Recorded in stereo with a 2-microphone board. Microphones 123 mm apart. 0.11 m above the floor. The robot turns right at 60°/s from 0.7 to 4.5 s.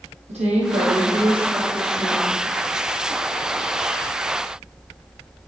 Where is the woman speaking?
75° right, 3 m; by 2.4 s 25° left, 3 m.